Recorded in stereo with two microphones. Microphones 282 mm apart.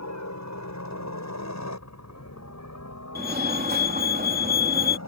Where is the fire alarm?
35° right (ahead or behind).